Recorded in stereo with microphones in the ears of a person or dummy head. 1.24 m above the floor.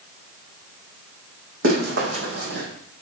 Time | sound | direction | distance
1.6 | running footsteps | 75° right (ahead or behind) | 4 m